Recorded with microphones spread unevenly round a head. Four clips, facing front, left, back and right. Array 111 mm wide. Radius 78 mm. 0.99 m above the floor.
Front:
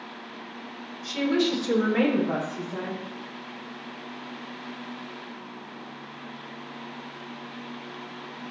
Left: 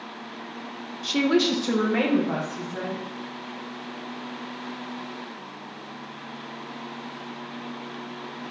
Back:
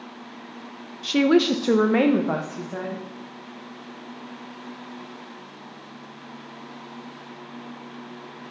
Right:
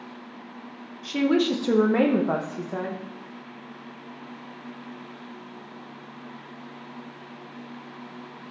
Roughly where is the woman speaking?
Behind left.